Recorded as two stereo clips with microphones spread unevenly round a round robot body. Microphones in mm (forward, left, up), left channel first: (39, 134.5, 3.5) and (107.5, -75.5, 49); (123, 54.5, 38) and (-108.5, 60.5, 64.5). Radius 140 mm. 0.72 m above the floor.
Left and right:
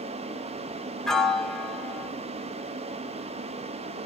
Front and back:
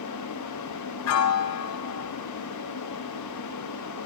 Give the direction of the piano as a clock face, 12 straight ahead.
12 o'clock.